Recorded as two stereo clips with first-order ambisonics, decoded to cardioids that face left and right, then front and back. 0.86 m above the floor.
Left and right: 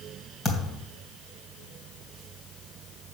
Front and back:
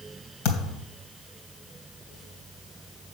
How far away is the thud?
About 2.5 m.